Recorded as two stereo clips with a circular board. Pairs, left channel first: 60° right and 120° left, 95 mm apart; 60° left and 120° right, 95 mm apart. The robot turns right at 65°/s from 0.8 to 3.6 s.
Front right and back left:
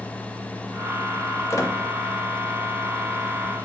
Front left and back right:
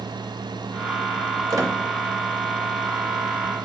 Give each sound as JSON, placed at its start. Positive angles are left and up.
{"t": 1.5, "sound": "a squeak", "azimuth_deg": -100, "distance_m": 0.8}